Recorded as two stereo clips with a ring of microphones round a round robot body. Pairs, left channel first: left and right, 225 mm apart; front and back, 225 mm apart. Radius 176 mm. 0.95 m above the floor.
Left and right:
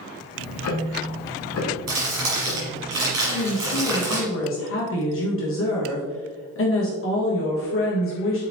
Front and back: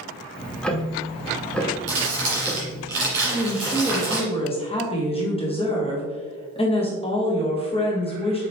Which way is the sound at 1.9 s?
120° right.